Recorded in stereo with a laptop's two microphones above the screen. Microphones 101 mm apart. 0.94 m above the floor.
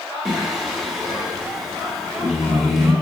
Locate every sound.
0.2 s singing: 5° right (ahead or behind), 1.4 m